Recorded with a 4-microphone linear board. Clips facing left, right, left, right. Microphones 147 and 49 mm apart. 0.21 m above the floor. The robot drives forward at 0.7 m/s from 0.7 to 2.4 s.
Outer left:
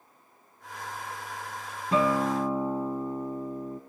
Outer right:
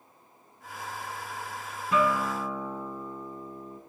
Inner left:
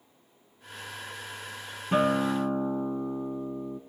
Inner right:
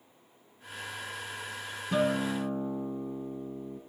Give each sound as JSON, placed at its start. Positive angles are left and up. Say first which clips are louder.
{"t": 1.9, "sound": "a guitar", "louder": "outer left 2 dB, inner left 4 dB", "side_deg": 30, "distance_m": 1.5}